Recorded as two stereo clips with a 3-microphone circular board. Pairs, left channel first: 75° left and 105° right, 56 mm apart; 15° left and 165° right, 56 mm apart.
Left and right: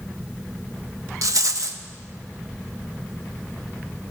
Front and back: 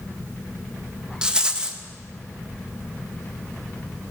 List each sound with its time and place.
1.2 s a rattle: 95° right, 1.0 m